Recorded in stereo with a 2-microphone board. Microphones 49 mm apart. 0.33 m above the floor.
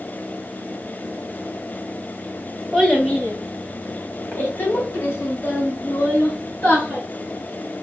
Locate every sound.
2.7 s a child speaking: 10° left (ahead or behind), 1.3 m; by 7.0 s 65° left (ahead or behind), 3 m